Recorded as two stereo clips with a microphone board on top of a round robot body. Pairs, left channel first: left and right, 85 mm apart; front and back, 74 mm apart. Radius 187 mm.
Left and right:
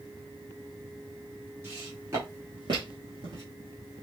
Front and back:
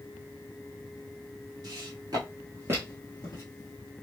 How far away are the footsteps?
About 1.5 m.